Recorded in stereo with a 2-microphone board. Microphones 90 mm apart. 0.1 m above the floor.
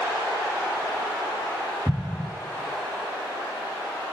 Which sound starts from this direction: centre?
An explosion, at 1.9 s.